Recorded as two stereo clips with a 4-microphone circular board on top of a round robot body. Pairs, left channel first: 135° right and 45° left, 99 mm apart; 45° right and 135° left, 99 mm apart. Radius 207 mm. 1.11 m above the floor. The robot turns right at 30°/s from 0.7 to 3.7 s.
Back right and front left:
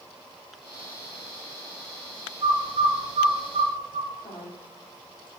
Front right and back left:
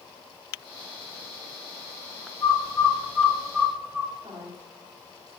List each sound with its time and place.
2.4 s a bird: 10° left, 3 m; by 4.1 s 50° left, 3 m
4.2 s a woman speaking: 175° right, 3.5 m